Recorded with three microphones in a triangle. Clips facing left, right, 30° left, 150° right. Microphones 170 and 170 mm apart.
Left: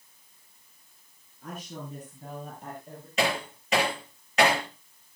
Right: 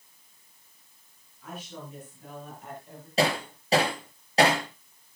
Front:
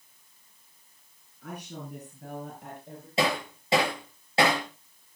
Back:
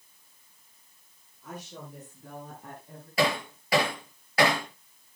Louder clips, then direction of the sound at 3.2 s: Right 2 dB, back 1 dB; 35° right.